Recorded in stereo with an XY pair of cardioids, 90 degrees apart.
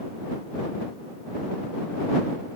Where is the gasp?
I don't hear a gasp.